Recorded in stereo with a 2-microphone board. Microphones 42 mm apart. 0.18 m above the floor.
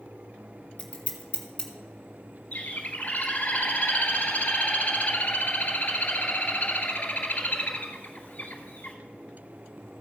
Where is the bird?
45° left (ahead or behind), 1.7 m.